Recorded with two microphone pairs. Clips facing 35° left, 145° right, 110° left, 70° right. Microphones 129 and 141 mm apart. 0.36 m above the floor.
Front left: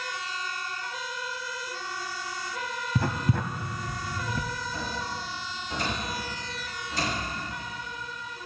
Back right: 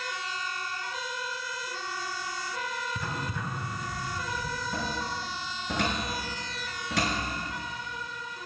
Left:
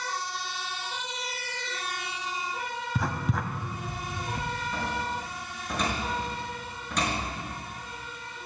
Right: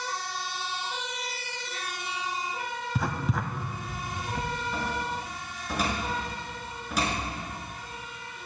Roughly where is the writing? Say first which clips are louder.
Front left 6 dB, even; ahead.